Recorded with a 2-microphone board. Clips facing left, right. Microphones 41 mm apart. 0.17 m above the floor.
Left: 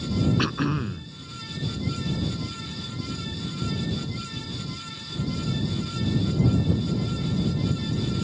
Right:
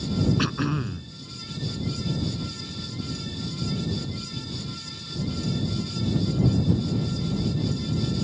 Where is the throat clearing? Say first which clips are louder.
Left 1 dB; 5° left (ahead or behind).